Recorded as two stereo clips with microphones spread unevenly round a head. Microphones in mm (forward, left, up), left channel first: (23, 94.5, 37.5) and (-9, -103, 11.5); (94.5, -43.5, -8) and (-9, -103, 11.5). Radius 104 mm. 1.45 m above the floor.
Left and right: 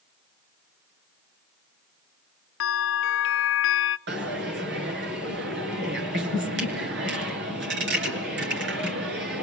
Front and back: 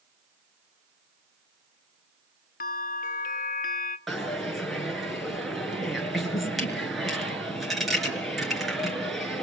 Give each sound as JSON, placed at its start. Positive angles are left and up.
{"t": 2.6, "sound": "a bell", "azimuth_deg": 55, "distance_m": 0.8}
{"t": 4.1, "sound": "a dropped coin", "azimuth_deg": -60, "distance_m": 6.0}